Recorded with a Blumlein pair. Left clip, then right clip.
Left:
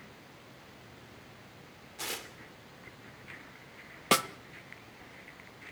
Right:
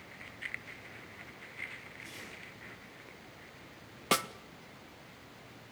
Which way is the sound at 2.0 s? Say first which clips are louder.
Left 7 dB; 45° left.